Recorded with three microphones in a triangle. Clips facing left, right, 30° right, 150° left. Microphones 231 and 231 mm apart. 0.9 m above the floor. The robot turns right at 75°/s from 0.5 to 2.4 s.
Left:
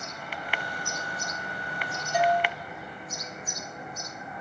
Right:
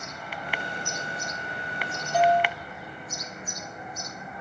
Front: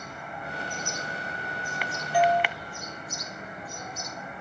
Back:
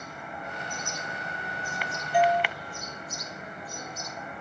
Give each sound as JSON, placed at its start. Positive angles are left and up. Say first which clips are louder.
{"t": 2.1, "sound": "a doorbell", "louder": "right 3 dB, even", "azimuth_deg": 155, "distance_m": 1.1}